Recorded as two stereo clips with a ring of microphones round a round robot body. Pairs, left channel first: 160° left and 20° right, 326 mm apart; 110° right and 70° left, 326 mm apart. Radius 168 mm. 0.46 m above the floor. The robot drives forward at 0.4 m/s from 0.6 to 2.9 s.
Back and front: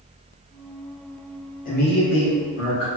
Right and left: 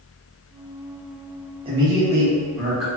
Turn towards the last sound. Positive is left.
turn(degrees=155)